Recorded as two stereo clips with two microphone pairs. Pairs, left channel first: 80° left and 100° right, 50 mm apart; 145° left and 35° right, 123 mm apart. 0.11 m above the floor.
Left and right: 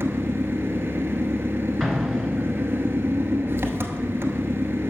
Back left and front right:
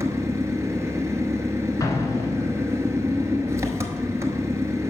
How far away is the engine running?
About 0.8 m.